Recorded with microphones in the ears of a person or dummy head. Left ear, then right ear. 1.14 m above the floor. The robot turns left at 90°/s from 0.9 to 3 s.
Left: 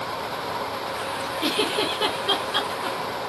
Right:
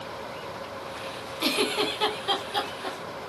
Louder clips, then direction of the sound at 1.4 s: Left 1 dB; 100° right.